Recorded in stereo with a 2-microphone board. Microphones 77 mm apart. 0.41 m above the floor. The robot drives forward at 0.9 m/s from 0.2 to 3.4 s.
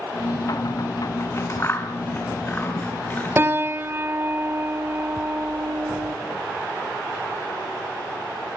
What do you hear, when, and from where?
1.2 s scissors: 40° left (ahead or behind), 2.5 m; by 4.0 s 20° left (ahead or behind), 4 m
3.4 s a piano: 30° right (ahead or behind), 0.8 m